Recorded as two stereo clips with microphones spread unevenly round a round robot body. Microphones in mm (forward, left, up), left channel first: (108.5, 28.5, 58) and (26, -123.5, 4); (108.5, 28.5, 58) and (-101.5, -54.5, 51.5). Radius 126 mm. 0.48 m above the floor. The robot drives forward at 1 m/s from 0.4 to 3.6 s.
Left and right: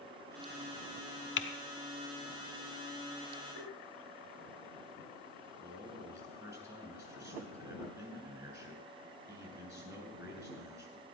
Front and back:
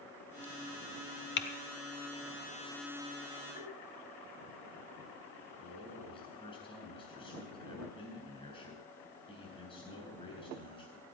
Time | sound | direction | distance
1.4 | typing on a keyboard | 55° left | 1.1 m
3.6 | tapping | 80° left | 3.5 m
5.6 | a man speaking | 45° right | 7.5 m